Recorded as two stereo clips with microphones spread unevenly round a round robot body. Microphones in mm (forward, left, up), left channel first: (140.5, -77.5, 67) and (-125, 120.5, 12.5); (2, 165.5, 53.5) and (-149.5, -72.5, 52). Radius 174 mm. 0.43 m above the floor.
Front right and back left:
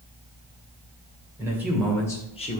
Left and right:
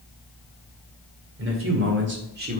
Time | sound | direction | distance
1.4 | a man speaking | 145° right | 2 m